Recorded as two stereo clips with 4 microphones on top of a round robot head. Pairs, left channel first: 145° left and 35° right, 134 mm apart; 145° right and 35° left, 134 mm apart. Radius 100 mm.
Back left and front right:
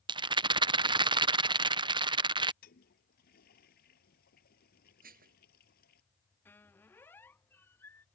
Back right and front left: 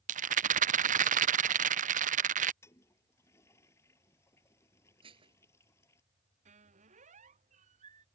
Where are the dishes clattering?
20° right.